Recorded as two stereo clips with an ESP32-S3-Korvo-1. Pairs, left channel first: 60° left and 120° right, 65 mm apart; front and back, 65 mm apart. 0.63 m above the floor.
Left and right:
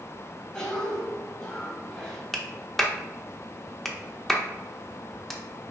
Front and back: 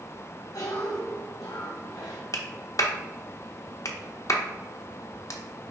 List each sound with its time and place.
0.5 s a cough: 10° right, 3 m
2.3 s a clap: 25° right, 0.9 m